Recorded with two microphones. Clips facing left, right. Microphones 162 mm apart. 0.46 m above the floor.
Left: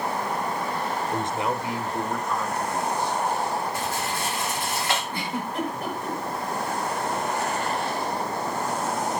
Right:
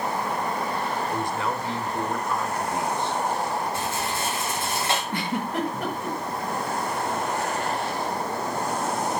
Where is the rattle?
25° right (ahead or behind), 6.5 m.